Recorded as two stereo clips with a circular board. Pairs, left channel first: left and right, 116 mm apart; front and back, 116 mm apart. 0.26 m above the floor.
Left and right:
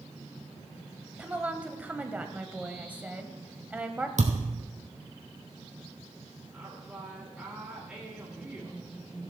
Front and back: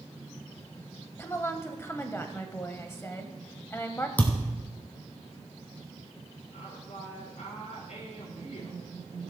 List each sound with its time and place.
1.2 s a woman speaking: 30° right, 1.0 m
4.2 s a thud: 75° right, 1.7 m
6.5 s a woman speaking: 10° right, 4.5 m